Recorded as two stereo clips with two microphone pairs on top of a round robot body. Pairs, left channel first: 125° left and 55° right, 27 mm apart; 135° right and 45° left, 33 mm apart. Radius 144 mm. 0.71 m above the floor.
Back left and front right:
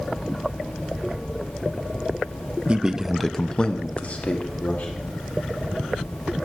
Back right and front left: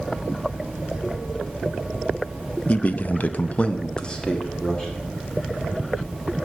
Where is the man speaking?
95° right, 1.2 m; by 5.0 s 145° left, 3 m.